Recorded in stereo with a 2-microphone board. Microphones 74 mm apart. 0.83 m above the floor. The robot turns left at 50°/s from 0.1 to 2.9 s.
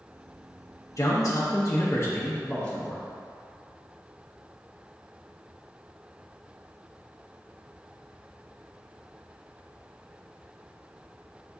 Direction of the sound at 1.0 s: 105° left.